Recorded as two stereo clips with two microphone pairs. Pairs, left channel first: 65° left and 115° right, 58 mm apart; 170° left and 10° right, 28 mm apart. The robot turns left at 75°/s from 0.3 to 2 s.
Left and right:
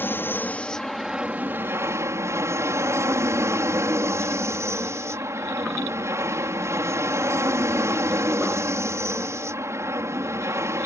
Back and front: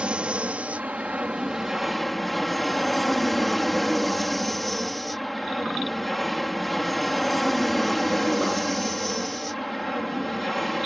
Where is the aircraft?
25° left; by 10.9 s 105° right.